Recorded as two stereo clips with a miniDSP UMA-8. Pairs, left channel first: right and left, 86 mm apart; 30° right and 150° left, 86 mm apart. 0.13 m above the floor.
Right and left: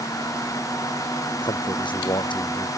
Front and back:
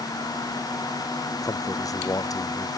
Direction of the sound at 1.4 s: 75° right.